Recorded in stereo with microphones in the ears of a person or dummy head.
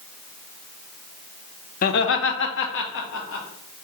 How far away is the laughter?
About 0.5 m.